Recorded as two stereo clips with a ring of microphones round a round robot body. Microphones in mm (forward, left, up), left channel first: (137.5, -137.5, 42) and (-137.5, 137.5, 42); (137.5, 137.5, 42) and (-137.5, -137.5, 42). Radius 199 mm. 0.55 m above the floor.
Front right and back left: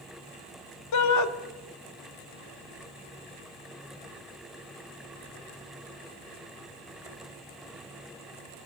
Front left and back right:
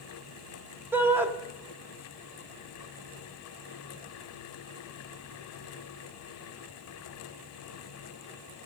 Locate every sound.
0.9 s a shout: 50° right, 0.7 m